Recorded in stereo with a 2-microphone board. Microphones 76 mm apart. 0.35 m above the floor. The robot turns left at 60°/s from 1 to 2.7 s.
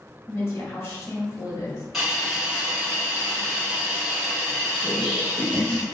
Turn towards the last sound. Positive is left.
turn(degrees=-20)  # may be behind; listen again after turning